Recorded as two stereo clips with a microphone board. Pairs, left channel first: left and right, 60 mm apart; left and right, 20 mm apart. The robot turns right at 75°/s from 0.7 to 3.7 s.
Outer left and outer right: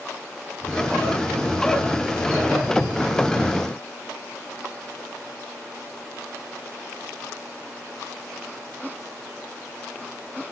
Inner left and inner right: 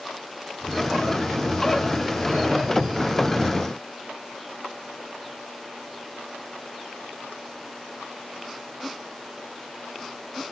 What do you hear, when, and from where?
0.7 s ticking: 20° left (ahead or behind), 4 m; by 0.7 s 25° left (ahead or behind), 4 m